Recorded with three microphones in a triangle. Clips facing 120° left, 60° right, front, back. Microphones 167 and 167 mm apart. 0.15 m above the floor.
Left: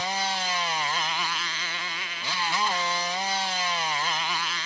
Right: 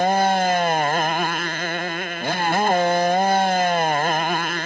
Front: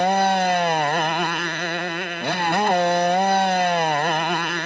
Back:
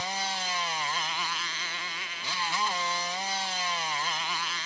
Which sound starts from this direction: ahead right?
A motorcycle, at 0.0 s.